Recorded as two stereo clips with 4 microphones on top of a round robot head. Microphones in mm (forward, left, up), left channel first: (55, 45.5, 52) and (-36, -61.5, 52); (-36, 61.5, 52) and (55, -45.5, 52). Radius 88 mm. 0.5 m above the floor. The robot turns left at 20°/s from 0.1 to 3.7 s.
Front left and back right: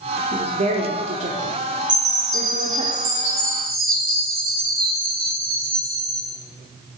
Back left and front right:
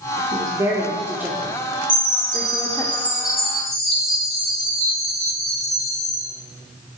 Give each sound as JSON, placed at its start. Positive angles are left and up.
{"t": 0.3, "sound": "a woman speaking", "azimuth_deg": -105, "distance_m": 1.0}
{"t": 1.9, "sound": "a chime", "azimuth_deg": -105, "distance_m": 4.0}